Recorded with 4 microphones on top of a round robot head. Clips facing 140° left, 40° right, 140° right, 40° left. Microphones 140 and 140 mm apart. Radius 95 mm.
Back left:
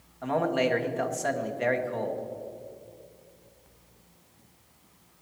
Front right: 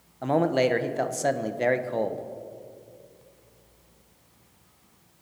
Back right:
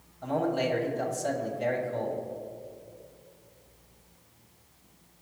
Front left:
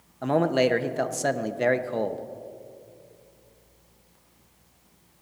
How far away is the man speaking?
About 0.8 m.